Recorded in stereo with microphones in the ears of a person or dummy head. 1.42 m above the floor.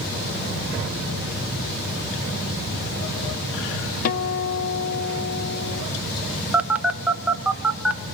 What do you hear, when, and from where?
4.0 s a guitar: 50° left (ahead or behind), 0.7 m
6.5 s a phone buzzing: 5° right (ahead or behind), 1.2 m